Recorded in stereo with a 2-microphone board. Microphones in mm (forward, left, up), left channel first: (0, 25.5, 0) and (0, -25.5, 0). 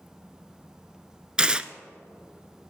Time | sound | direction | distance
1.4 | tearing paper | 15° right (ahead or behind) | 0.6 m